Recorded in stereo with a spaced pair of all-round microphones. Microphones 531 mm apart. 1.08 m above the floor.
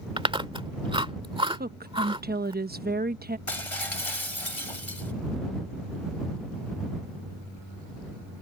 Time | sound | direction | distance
0.2 | chewing | 10° right (ahead or behind) | ?
1.5 | a woman speaking | 15° right (ahead or behind) | ?
3.5 | breaking glass | 70° left (ahead or behind) | ?